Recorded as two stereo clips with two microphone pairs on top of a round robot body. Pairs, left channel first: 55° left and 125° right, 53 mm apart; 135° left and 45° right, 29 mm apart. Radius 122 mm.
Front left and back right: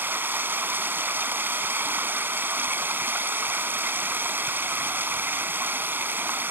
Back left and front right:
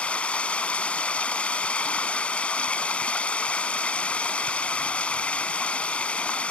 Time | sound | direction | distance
0.0 | running water | 175° right | ?